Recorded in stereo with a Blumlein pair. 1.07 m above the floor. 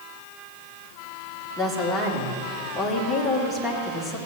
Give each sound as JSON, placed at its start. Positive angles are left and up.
{"t": 1.6, "sound": "a woman speaking", "azimuth_deg": 5, "distance_m": 2.0}